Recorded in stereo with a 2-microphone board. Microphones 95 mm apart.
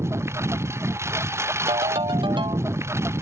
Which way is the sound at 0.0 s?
30° right (ahead or behind).